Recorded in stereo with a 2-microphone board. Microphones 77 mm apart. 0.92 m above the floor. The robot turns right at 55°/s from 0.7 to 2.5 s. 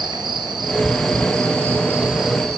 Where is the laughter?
No laughter in this recording.